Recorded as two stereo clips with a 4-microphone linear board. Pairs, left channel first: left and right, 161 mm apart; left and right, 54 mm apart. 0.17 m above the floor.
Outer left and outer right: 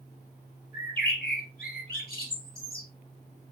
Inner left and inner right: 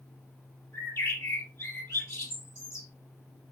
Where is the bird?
65° left (ahead or behind), 3 m.